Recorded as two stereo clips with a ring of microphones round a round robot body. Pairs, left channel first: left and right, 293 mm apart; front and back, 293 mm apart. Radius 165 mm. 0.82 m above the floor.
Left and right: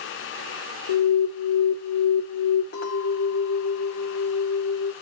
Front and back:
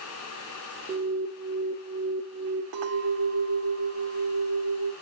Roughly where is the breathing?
I don't hear breathing.